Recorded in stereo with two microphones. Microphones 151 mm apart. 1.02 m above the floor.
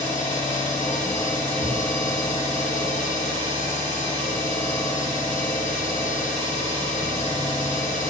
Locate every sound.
0.0 s an engine running: 55° left (ahead or behind), 1.0 m